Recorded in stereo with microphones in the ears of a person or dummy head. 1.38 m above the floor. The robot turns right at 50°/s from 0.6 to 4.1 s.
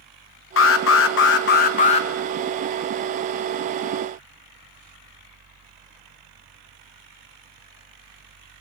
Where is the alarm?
80° left, 1.4 m; by 2.1 s 150° left, 1.4 m.